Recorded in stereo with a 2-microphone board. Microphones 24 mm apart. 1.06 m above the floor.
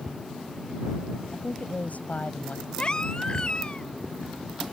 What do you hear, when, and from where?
1.3 s a woman speaking: 85° left
2.8 s a baby crying: 35° left (ahead or behind)